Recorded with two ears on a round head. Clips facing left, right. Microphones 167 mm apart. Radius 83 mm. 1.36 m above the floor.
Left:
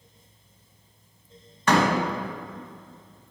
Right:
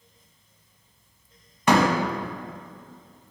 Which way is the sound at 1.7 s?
10° right (ahead or behind).